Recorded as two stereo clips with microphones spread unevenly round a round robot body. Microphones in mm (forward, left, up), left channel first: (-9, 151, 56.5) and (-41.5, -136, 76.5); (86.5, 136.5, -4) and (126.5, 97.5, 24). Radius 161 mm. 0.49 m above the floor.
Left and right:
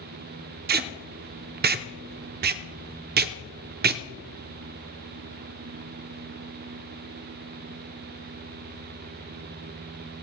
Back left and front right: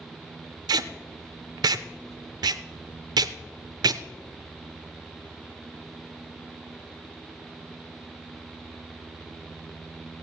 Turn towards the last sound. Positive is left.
turn(degrees=-40)